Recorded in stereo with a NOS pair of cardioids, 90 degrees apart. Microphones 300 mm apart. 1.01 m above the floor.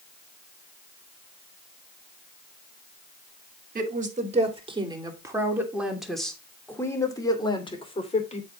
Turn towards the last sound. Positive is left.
turn(degrees=20)